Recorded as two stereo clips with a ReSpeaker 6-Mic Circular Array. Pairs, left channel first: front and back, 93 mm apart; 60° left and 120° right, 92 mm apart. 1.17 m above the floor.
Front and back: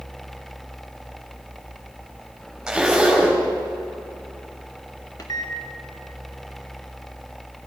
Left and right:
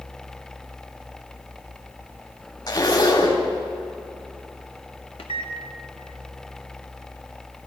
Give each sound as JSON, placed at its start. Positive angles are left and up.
{"t": 2.7, "sound": "a zipper", "azimuth_deg": 95, "distance_m": 2.5}
{"t": 5.2, "sound": "a microwave", "azimuth_deg": 45, "distance_m": 1.1}